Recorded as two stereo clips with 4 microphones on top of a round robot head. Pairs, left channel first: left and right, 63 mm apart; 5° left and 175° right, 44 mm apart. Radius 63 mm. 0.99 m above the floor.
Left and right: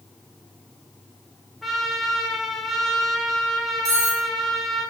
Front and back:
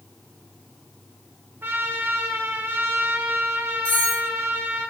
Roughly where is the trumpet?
Behind.